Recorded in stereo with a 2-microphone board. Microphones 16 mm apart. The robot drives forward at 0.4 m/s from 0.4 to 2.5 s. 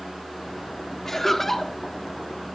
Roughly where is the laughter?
Left.